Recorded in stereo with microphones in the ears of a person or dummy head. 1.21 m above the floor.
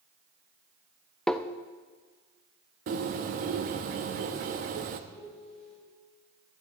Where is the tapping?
5° left (ahead or behind), 0.6 m.